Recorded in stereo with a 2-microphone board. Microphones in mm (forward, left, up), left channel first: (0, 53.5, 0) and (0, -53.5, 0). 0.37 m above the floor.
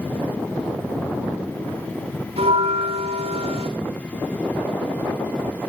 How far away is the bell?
About 7 m.